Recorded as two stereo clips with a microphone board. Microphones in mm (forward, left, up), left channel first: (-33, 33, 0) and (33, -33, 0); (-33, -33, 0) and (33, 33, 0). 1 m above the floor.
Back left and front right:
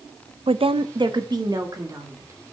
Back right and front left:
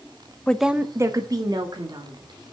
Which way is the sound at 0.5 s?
60° right.